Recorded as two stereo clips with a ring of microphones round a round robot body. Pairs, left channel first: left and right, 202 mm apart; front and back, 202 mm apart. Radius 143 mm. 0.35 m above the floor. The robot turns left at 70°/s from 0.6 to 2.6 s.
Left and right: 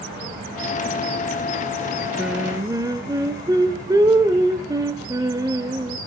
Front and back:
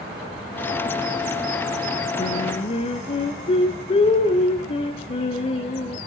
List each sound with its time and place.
2.2 s singing: 5° right, 1.2 m; by 6.0 s 35° right, 1.2 m